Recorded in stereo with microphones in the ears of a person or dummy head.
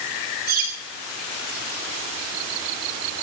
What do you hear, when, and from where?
0.5 s cutlery clinking: 50° right (ahead or behind), 5 m